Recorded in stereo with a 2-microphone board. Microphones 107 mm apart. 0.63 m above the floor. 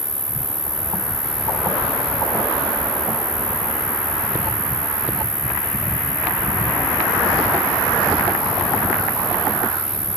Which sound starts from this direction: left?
An insect, at 0.0 s.